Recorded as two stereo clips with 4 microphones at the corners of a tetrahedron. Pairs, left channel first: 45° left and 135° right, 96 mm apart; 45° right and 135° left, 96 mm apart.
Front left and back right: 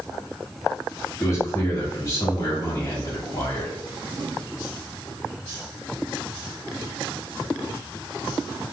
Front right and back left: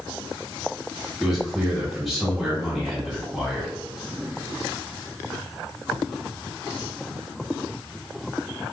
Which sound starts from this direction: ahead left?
A man speaking, at 1.2 s.